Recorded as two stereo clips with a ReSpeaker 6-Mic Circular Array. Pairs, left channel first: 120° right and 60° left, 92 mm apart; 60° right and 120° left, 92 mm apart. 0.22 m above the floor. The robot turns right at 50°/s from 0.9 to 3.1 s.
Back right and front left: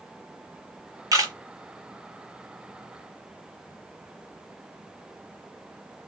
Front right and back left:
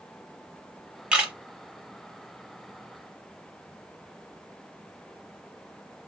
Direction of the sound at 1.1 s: 45° left.